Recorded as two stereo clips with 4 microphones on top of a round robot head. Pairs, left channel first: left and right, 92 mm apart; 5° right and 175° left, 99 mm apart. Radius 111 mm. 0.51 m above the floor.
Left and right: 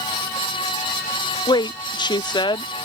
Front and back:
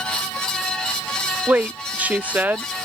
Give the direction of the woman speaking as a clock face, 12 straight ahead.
9 o'clock.